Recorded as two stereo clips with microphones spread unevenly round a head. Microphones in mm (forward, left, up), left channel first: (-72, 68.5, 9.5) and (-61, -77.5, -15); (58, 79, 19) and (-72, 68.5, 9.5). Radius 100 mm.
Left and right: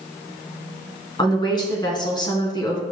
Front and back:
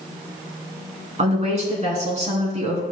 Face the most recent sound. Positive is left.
turn(degrees=155)